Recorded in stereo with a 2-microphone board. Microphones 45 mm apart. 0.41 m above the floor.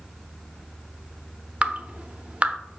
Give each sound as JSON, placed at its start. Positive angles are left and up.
{"t": 1.6, "sound": "dripping", "side_deg": -25, "distance_m": 0.6}